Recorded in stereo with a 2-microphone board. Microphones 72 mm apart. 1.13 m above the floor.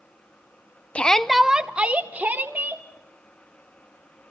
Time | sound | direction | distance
0.9 | a shout | 15° left (ahead or behind) | 0.6 m